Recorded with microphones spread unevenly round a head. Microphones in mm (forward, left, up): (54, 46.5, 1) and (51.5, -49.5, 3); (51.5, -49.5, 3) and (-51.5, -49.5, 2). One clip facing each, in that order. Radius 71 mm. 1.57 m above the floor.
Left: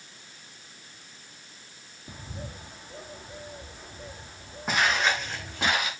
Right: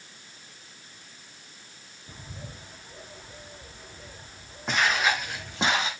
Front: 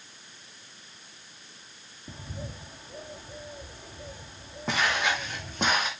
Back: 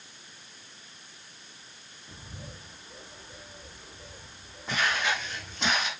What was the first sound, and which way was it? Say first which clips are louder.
A bird: left 3 dB, front 6 dB; 20° left.